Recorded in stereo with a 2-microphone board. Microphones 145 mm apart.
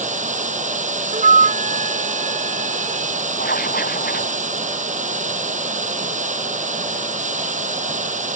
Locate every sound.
0.0 s running water: 55° right (ahead or behind)
1.1 s a flute: 60° right (ahead or behind)
3.4 s writing: 85° left